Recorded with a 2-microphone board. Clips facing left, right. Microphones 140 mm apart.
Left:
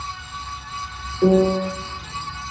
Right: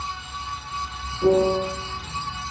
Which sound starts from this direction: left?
A piano, at 1.2 s.